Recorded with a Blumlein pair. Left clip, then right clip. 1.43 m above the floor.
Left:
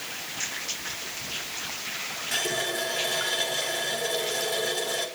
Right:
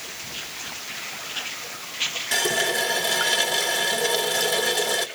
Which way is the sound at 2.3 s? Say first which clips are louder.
Right 5 dB; 20° right.